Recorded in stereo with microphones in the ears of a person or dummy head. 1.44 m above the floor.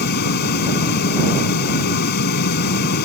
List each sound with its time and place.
0.0 s a fan: 55° left (ahead or behind)